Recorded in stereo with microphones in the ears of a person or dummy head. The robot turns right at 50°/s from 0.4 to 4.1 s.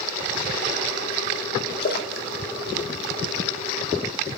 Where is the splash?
50° left (ahead or behind), 2 m; by 4.0 s 10° left (ahead or behind), 2 m.